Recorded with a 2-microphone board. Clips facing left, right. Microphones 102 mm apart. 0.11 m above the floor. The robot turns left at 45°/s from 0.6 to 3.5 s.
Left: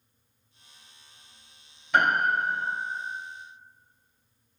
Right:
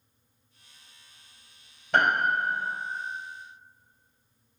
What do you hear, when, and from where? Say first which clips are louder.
1.9 s a piano: even; 110° right, 2.0 m; by 2.7 s 140° right, 2.0 m